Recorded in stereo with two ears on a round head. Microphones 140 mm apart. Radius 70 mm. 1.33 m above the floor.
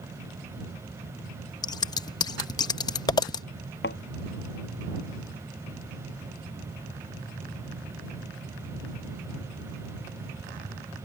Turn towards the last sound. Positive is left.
turn(degrees=75)  # may be behind; listen again after turning